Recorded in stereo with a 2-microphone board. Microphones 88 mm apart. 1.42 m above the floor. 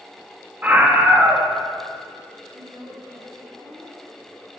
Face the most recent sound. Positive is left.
turn(degrees=-90)